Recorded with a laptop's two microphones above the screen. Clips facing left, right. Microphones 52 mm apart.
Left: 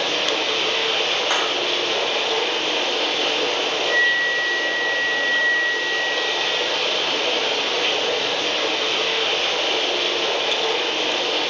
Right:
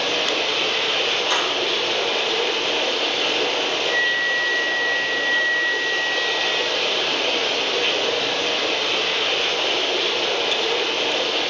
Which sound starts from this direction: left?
A clap, at 1.3 s.